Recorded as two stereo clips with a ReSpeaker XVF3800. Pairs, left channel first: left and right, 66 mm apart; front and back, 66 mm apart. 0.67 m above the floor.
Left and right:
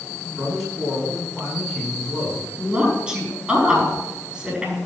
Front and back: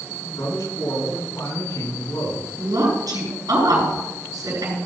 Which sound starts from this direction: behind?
A woman speaking, at 2.6 s.